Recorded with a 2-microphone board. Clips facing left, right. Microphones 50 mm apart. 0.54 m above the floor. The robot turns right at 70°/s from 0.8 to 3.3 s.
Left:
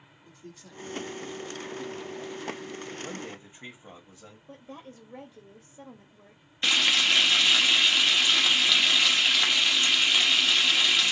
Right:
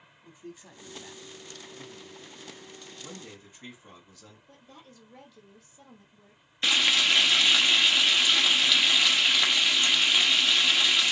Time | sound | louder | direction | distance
0.2 | a man speaking | right 2 dB | 15° right (ahead or behind) | 0.9 m
3.0 | a man speaking | left 6 dB | 25° left (ahead or behind) | 1.4 m
4.5 | a woman speaking | left 11 dB | 30° left (ahead or behind) | 1.0 m
6.6 | frying | even | centre (ahead or behind) | 1.0 m